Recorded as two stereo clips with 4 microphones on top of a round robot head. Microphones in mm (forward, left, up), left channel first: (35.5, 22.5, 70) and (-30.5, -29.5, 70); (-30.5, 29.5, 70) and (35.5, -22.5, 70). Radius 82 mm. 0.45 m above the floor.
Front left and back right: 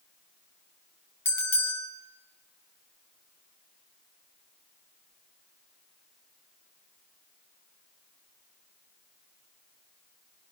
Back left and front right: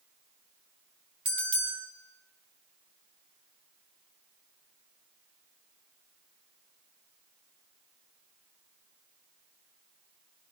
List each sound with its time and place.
1.2 s a bell: 25° right, 4.5 m